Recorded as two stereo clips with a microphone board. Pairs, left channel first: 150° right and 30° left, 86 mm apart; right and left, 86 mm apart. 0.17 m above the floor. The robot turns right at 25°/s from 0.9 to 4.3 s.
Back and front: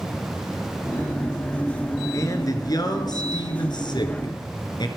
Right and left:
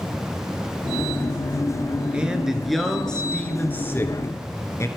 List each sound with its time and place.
2.1 s a man speaking: 165° left, 2.5 m; by 4.9 s 140° right, 2.5 m